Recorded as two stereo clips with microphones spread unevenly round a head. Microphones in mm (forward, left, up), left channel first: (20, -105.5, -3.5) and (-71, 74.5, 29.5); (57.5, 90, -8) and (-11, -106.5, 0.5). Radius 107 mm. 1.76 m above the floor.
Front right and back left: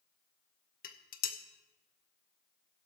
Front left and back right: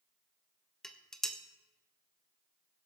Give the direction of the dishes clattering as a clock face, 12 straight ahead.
1 o'clock.